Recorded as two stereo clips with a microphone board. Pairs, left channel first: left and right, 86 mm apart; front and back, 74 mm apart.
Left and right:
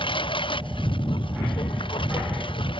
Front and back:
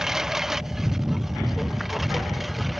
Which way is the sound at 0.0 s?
95° left.